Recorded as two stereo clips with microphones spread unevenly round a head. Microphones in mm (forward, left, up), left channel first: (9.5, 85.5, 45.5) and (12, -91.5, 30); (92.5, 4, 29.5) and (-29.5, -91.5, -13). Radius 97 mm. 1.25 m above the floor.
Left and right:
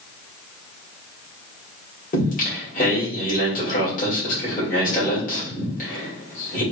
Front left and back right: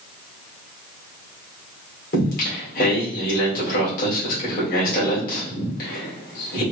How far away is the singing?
About 1.8 m.